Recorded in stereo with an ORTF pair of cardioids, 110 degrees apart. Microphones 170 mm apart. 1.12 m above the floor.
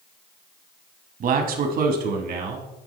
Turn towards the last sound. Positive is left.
turn(degrees=-70)